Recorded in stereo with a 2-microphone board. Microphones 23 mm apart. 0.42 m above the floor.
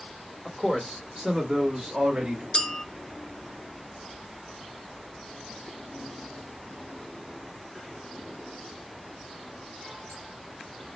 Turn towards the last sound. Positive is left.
turn(degrees=35)  # may be behind; listen again after turning